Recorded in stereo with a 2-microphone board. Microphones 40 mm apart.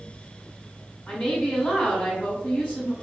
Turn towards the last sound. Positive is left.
turn(degrees=25)  # may be behind; listen again after turning